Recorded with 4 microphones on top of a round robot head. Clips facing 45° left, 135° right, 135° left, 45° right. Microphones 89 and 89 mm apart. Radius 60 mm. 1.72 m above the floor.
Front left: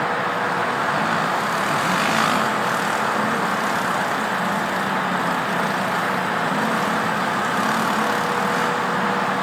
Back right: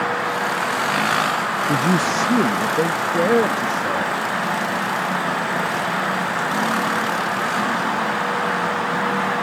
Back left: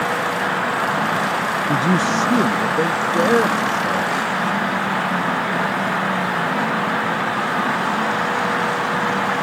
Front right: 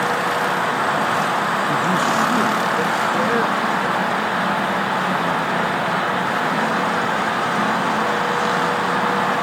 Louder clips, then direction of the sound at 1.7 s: Back right 3 dB, back left 2 dB; 160° right.